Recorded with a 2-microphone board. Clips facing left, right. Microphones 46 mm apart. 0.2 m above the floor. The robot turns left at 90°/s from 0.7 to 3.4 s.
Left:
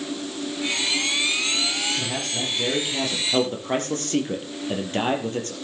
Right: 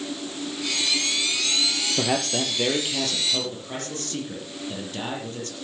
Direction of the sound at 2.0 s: 90° right.